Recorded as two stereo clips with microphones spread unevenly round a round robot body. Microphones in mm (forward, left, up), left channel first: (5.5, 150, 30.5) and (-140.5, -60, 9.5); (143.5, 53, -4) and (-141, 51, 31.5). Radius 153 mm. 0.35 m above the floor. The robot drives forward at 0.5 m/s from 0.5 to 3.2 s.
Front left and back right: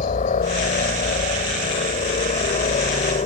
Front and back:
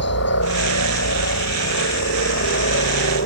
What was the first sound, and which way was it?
A helicopter, straight ahead.